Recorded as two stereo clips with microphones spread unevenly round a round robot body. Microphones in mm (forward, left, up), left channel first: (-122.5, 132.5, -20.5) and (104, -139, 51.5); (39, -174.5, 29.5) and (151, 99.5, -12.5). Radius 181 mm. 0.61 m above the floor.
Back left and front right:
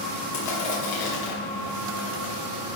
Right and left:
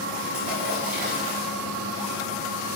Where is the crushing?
135° left, 3 m.